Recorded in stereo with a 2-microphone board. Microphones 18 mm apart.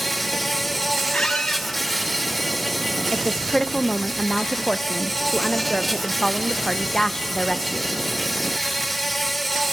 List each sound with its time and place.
0.0 s an insect: 5° left (ahead or behind), 2.0 m
1.1 s a squeak: 85° left, 1.4 m
3.1 s a woman speaking: 25° left (ahead or behind), 0.6 m